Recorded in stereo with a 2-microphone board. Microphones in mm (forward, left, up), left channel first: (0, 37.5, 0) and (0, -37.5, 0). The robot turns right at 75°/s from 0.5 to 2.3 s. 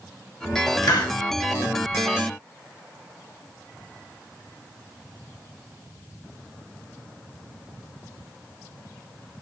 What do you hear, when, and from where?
0.8 s a hiss: 60° left (ahead or behind), 0.8 m; by 1.2 s 75° left (ahead or behind), 0.8 m